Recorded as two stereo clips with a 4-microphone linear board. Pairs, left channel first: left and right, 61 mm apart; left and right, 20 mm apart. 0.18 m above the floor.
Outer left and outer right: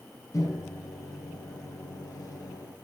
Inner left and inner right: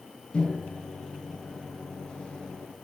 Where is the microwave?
65° left (ahead or behind), 3 m.